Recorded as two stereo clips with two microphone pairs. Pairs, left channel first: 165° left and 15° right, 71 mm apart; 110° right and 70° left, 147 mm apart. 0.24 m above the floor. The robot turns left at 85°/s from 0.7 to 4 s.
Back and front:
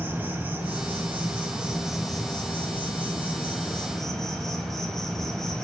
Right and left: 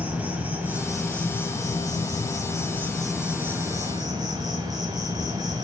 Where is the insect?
5° left, 1.6 m; by 5.7 s 85° left, 1.6 m.